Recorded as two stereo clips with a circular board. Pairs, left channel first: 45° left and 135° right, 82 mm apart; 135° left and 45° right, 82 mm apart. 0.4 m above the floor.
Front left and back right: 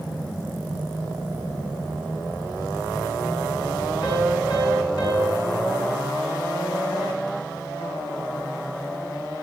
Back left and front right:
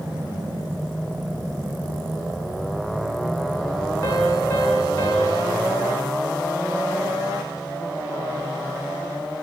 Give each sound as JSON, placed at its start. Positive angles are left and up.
{"t": 4.0, "sound": "a piano", "azimuth_deg": 75, "distance_m": 5.0}